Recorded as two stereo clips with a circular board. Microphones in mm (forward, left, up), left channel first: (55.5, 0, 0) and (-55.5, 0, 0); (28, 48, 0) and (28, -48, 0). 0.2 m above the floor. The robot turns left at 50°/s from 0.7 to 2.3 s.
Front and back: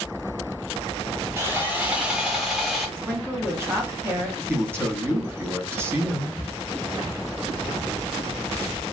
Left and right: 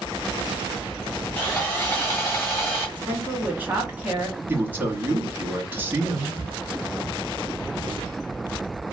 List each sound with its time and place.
1.4 s sawing: 150° left, 1.7 m; by 2.9 s 105° left, 1.7 m
3.0 s a woman speaking: 140° right, 1.2 m
4.5 s a man speaking: 140° right, 1.2 m
6.4 s a cupboard door: 40° right, 0.7 m